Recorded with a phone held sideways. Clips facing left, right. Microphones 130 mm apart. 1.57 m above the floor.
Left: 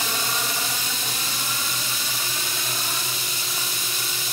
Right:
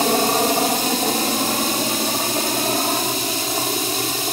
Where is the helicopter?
50° right (ahead or behind).